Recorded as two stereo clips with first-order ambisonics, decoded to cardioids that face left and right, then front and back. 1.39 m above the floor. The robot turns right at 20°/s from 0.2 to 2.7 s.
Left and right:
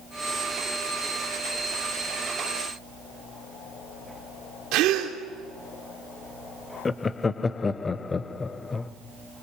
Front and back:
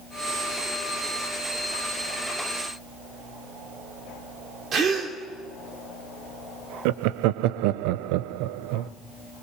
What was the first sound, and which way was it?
A gasp, 120° right.